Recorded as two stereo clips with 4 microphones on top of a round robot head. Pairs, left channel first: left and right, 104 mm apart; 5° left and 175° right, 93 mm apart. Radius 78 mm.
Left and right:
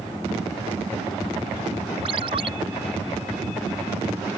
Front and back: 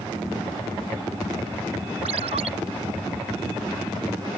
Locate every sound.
2.0 s a ringtone: 140° right